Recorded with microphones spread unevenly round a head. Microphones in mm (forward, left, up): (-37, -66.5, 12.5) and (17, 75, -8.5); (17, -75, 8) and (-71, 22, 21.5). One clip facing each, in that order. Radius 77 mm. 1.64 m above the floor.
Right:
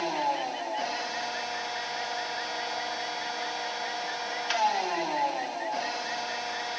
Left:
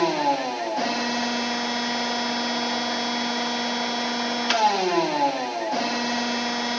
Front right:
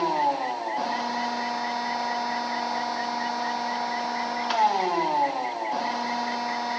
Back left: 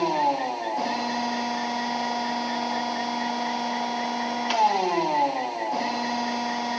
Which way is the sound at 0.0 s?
60° left.